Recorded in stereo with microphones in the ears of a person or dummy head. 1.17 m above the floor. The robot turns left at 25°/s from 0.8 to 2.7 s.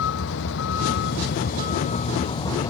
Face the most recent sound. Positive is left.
turn(degrees=20)